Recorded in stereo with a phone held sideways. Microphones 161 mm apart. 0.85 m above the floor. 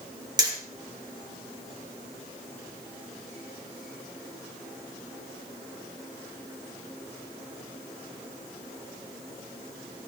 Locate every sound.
0.4 s hammering: 25° right (ahead or behind), 4.5 m